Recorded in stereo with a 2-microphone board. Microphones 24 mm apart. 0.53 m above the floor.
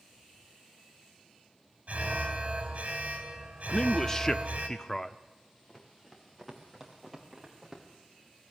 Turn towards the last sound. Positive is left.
turn(degrees=-10)  # may be behind; listen again after turning